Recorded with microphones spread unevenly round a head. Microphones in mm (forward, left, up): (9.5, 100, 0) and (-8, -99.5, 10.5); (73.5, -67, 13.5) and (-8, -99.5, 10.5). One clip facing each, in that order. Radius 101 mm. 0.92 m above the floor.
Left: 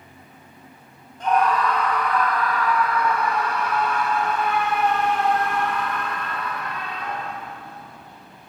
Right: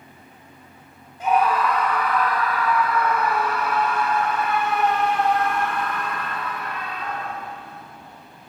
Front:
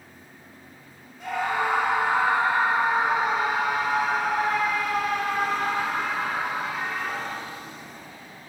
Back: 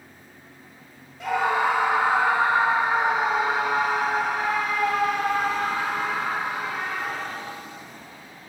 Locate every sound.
1.2 s a scream: 175° right, 3.5 m; by 7.4 s 175° left, 10 m